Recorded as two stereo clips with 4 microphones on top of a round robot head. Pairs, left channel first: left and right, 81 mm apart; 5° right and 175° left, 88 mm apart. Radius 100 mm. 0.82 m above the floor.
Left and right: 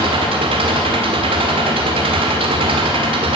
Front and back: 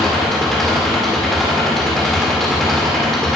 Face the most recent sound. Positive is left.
turn(degrees=-95)